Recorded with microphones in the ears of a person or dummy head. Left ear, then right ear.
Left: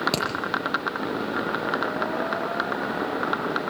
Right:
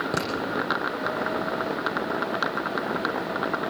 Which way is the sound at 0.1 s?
75° left (ahead or behind).